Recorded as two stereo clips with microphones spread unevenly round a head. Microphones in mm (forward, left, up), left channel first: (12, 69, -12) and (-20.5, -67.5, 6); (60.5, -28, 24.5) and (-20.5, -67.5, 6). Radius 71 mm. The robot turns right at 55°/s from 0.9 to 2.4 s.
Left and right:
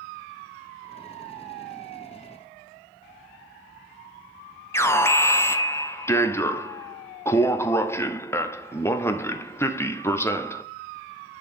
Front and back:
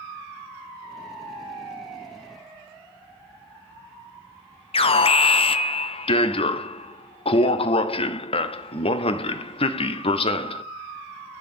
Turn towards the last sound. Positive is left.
turn(degrees=5)